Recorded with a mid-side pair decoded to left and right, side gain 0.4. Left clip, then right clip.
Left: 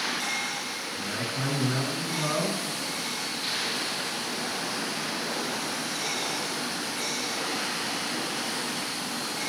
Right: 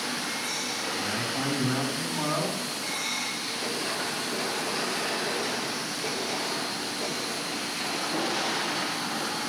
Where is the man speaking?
65° right, 4 m.